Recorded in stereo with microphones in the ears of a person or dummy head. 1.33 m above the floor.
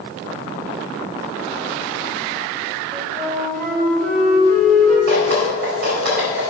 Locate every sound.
2.9 s a flute: 55° right (ahead or behind), 3.5 m
5.1 s dripping: 65° right (ahead or behind), 4 m